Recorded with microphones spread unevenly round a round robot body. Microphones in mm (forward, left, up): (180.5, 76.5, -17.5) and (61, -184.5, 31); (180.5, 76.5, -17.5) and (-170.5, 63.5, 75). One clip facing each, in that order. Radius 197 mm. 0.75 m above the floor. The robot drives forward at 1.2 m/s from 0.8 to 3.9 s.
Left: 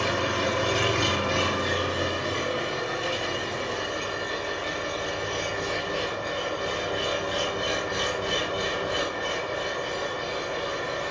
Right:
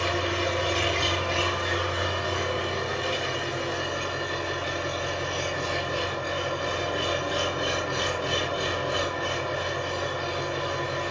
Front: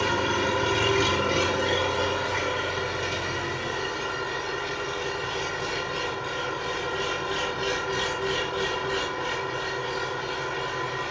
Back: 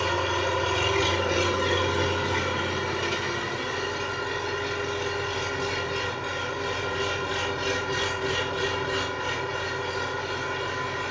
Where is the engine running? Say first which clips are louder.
Left 1 dB, front 1 dB; 50° left, 1.6 m; by 11.1 s 160° left, 3 m.